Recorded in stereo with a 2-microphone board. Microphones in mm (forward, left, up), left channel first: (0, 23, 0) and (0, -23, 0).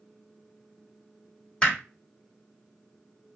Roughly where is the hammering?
Centre.